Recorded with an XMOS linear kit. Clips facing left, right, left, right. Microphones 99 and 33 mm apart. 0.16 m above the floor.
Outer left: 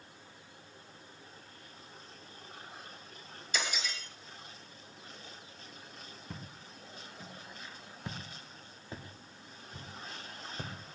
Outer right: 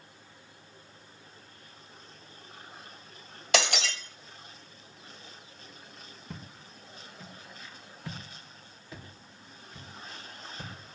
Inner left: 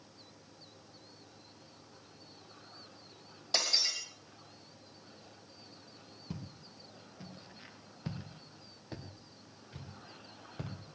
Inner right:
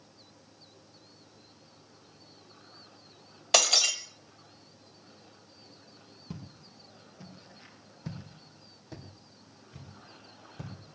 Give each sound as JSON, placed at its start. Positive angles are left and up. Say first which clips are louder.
{"t": 3.5, "sound": "breaking glass", "louder": "outer right 9 dB, inner right 8 dB", "side_deg": -75, "distance_m": 1.1}
{"t": 6.3, "sound": "footsteps", "louder": "outer right 3 dB, inner right 1 dB", "side_deg": 0, "distance_m": 2.0}